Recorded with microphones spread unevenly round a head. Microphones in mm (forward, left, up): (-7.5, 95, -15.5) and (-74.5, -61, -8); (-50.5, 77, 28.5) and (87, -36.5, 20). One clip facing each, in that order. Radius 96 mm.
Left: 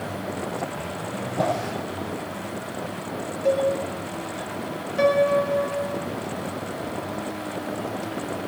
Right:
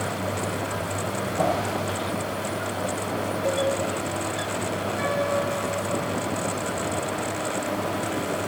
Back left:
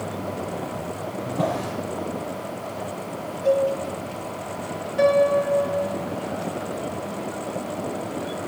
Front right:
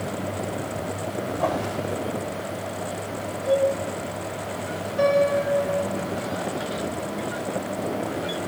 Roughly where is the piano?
Left.